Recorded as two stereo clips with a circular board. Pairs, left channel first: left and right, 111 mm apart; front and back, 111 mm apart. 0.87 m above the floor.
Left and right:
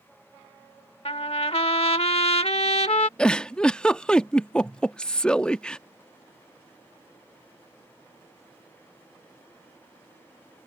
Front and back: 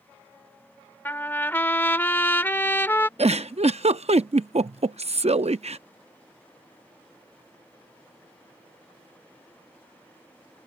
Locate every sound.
1.1 s a trumpet: 70° left
3.2 s a giggle: 170° left